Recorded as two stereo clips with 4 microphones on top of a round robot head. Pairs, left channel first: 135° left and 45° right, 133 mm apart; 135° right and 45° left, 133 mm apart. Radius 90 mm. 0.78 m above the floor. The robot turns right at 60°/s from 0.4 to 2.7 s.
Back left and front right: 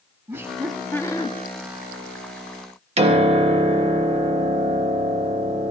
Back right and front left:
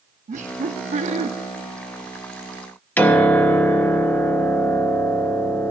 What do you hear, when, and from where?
0.3 s laughter: 30° left, 1.1 m; by 1.3 s 85° left, 1.1 m
3.0 s a piano: 60° right, 1.4 m